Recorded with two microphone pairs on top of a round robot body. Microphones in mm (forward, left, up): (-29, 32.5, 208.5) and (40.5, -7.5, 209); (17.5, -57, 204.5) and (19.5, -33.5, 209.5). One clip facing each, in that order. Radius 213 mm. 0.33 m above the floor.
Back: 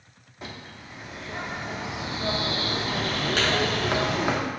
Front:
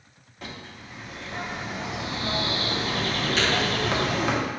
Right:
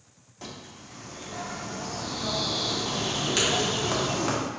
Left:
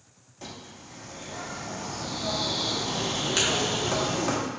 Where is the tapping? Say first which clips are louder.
Front 1 dB, even; straight behind, 1.7 m.